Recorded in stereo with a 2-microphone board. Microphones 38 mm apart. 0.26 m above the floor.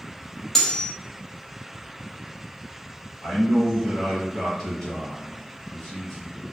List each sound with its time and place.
0.6 s cutlery clinking: 15° left (ahead or behind), 0.5 m
3.2 s a man speaking: 10° left (ahead or behind), 1.1 m